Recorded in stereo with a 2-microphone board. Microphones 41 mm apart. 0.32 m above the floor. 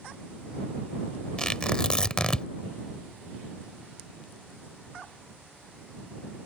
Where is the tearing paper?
20° left (ahead or behind).